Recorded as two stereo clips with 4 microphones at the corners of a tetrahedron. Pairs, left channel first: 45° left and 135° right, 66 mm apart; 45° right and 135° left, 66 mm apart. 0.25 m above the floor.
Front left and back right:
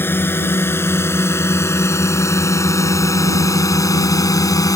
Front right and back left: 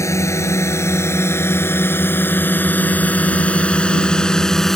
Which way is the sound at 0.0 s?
10° right.